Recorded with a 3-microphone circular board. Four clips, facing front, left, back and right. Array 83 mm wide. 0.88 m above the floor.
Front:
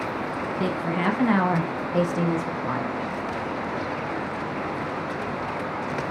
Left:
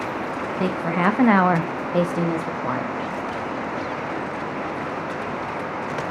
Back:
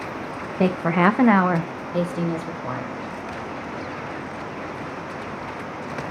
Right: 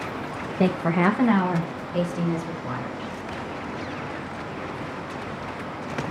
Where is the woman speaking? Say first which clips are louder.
Right 1 dB, back 8 dB; 150° right, 0.7 m; by 3.0 s 75° left, 1.6 m.